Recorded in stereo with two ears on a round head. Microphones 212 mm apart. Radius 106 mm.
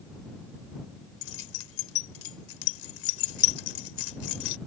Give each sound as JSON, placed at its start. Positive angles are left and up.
{"t": 1.2, "sound": "keys jangling", "side_deg": 65}